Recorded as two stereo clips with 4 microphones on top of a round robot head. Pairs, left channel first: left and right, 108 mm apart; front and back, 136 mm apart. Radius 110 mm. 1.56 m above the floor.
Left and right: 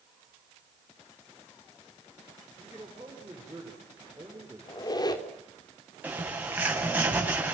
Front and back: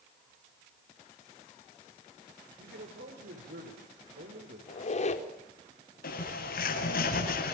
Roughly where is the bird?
Ahead.